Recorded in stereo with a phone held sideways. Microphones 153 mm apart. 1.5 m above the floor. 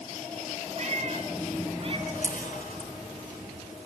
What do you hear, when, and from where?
0.8 s a cat meowing: 50° right (ahead or behind), 3 m; by 2.0 s 40° right (ahead or behind), 3 m
2.1 s a camera shutter: 65° left (ahead or behind), 4 m